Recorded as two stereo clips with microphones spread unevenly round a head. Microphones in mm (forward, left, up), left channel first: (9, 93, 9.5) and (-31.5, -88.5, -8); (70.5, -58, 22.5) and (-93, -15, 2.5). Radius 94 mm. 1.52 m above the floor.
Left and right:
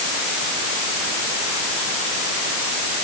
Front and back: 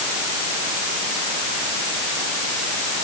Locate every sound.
Only background noise.